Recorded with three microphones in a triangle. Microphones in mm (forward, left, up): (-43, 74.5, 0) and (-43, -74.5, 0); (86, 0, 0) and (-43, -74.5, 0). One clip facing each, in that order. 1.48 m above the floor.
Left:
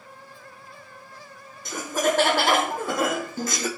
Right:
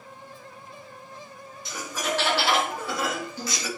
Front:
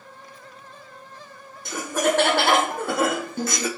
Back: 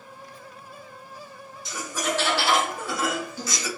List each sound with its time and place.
1.6 s laughter: 55° left, 0.6 m